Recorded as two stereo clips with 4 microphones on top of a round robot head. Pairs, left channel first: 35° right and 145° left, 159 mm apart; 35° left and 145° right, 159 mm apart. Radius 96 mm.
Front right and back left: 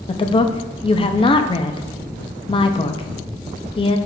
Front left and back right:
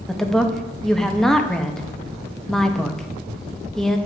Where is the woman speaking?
50° right, 0.6 m.